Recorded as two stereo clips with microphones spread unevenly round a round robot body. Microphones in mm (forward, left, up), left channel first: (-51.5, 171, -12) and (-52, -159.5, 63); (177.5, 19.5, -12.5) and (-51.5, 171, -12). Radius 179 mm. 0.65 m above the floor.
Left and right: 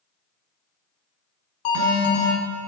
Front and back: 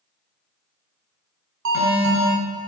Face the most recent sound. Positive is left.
turn(degrees=110)